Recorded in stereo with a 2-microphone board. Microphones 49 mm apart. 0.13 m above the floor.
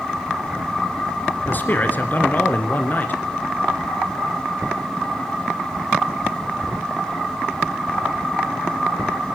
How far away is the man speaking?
About 1.5 m.